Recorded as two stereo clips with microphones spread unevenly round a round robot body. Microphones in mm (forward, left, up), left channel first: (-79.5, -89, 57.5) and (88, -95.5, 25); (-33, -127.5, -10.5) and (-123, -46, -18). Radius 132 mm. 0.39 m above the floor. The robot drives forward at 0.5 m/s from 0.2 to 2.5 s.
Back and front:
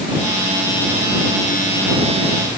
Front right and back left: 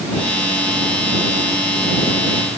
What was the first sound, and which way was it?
Only background noise.